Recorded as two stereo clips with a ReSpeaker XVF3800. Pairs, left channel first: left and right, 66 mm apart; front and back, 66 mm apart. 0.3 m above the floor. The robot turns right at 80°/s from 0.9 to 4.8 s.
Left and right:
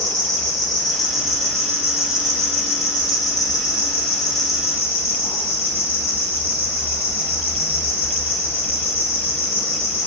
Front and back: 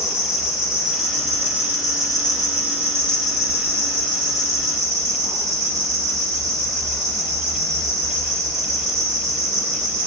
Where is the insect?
100° right, 0.9 m; by 10.1 s 145° right, 0.9 m.